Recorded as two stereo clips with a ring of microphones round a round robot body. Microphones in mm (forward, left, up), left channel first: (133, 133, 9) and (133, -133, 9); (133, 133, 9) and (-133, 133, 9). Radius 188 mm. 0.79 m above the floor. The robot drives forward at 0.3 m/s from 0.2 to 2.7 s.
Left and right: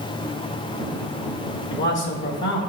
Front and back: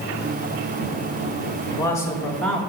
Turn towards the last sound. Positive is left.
turn(degrees=90)